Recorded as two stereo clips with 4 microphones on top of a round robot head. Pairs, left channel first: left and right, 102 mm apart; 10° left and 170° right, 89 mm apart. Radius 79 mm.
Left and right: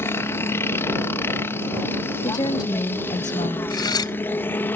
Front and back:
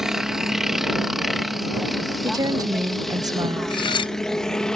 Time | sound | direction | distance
0.0 | a helicopter | 115° left | ?
2.2 | a woman speaking | 150° left | ?
3.7 | cutlery clinking | 40° left | ?